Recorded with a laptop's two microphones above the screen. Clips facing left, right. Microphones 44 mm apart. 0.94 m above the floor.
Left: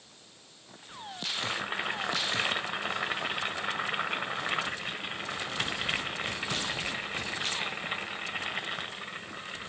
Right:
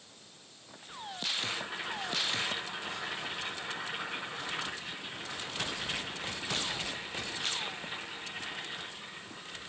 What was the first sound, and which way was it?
Boiling, 55° left (ahead or behind).